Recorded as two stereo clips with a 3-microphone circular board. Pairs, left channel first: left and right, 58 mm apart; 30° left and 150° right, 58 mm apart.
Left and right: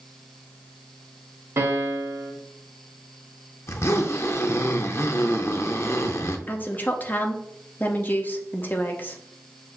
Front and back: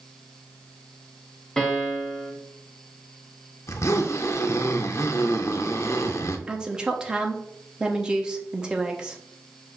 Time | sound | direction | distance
1.6 | a piano | 50° right | 1.0 m
3.7 | a zipper | 55° left | 0.5 m
6.5 | a woman speaking | 135° left | 0.7 m